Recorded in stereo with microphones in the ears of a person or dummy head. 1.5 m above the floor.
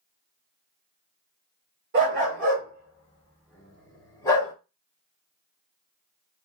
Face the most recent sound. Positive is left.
turn(degrees=25)  # may be behind; listen again after turning